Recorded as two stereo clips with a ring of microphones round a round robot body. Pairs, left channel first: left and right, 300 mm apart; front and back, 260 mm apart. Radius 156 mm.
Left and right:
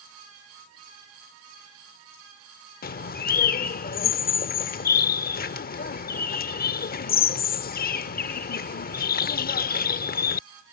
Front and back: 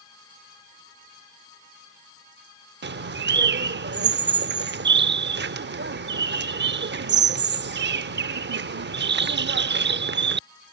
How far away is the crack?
I don't hear a crack.